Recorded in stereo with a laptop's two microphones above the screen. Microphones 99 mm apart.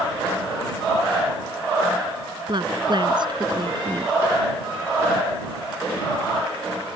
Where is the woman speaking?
45° right (ahead or behind).